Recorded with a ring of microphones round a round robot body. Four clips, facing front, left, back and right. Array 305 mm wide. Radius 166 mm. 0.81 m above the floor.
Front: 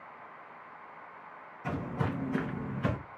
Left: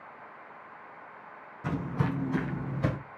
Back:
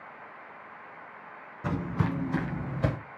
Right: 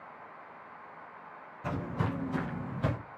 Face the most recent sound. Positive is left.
turn(degrees=175)